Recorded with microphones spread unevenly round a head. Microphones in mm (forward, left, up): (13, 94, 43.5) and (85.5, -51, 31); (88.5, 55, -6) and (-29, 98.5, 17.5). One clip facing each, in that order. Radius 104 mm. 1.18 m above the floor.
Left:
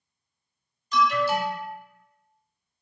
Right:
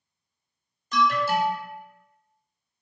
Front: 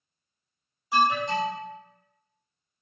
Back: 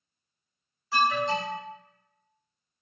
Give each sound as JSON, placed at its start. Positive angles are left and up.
{"t": 0.9, "sound": "an alarm", "azimuth_deg": -90, "distance_m": 0.5}